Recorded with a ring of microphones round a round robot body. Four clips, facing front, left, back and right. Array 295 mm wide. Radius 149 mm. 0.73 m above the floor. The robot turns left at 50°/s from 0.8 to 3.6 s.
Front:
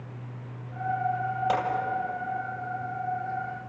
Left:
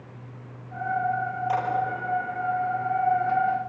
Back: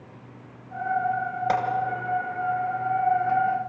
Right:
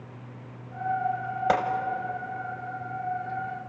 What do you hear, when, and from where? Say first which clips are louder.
1.5 s a gunshot: right 3 dB, back 3 dB; 100° right, 3 m; by 1.6 s 105° right, 3 m